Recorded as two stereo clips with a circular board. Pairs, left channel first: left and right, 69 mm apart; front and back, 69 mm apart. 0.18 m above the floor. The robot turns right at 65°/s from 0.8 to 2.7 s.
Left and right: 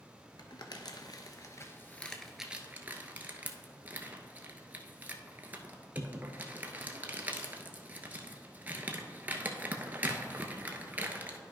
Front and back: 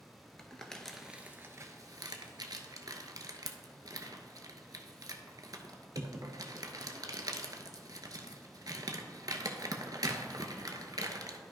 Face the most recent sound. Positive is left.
turn(degrees=-155)